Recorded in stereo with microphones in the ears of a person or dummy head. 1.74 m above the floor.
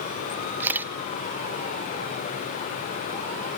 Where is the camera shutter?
10° right (ahead or behind), 0.6 m.